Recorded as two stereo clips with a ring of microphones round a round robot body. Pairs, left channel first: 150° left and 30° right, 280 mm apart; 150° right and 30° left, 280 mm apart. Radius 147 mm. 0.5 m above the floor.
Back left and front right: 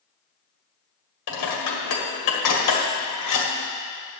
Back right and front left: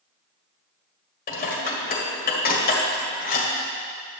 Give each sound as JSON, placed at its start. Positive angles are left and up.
{"t": 1.3, "sound": "dishes clattering", "azimuth_deg": 150, "distance_m": 1.8}